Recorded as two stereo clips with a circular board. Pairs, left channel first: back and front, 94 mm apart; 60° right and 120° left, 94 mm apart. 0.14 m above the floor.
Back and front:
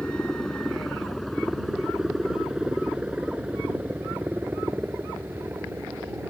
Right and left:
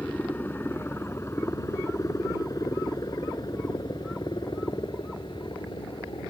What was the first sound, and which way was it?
A helicopter, 110° right.